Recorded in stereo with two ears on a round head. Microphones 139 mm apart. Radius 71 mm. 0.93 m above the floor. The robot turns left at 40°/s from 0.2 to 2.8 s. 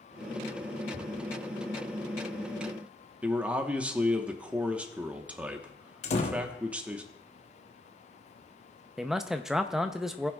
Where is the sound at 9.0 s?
5° right (ahead or behind), 0.5 m.